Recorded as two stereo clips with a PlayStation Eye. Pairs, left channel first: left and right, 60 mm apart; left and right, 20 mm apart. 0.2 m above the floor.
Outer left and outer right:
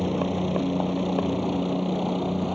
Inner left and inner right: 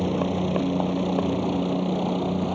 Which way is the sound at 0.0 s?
Centre (ahead or behind).